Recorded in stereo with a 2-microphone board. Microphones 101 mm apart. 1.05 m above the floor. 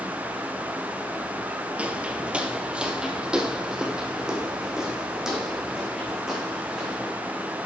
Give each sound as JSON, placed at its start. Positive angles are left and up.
{"t": 1.8, "sound": "footsteps", "side_deg": -15, "distance_m": 1.4}